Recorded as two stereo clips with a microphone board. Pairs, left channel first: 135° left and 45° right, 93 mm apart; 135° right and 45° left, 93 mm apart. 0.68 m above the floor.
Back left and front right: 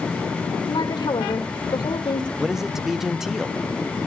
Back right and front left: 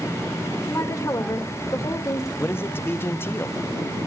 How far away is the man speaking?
About 0.5 m.